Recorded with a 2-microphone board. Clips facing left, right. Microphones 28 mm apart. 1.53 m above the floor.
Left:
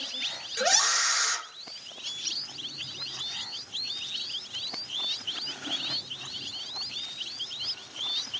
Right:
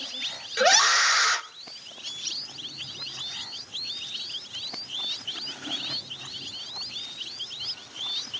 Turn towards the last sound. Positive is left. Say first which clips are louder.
# right 6 dB
turn(degrees=-30)  # may be behind; listen again after turning